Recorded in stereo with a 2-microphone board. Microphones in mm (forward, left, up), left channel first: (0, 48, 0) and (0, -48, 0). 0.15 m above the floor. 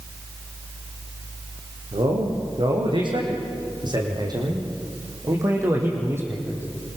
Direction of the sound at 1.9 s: 65° right (ahead or behind).